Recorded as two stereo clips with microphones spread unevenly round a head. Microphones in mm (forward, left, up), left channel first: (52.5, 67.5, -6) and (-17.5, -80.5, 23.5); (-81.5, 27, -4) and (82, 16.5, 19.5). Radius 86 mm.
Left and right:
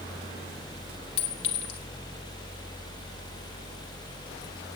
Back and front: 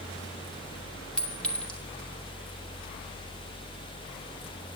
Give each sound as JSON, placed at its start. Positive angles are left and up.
{"t": 1.2, "sound": "a clink", "azimuth_deg": 90, "distance_m": 2.5}